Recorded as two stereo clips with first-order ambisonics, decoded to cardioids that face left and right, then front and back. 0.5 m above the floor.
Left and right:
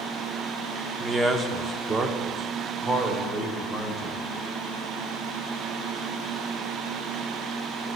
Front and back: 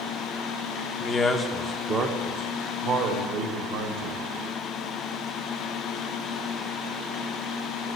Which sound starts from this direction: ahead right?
A man speaking, at 1.0 s.